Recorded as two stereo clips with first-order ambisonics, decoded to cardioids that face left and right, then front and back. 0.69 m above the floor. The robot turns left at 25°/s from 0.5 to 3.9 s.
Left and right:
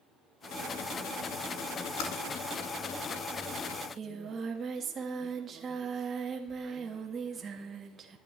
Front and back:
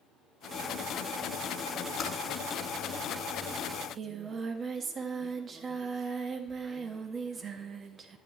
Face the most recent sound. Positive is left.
turn(degrees=-135)